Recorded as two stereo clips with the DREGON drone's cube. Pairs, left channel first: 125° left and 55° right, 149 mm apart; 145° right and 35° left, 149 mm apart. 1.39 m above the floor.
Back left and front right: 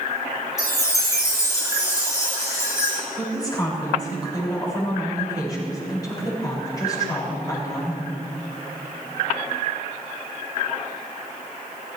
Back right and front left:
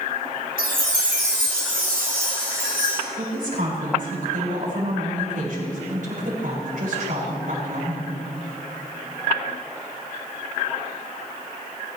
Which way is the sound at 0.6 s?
55° left.